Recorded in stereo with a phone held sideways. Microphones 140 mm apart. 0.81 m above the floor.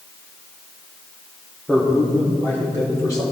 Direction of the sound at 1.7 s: 5° left (ahead or behind).